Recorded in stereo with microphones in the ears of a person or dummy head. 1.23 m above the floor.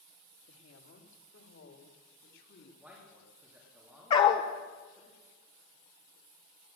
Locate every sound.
0.5 s a woman speaking: 75° left (ahead or behind), 2.5 m; by 2.7 s 70° left (ahead or behind), 3 m
2.8 s a man speaking: 10° right (ahead or behind), 2.5 m
4.1 s a dog barking: 25° left (ahead or behind), 1.3 m